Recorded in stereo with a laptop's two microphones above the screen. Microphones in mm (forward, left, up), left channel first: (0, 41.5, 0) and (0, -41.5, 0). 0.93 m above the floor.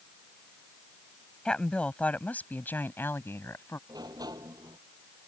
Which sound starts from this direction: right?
A sliding door, at 3.9 s.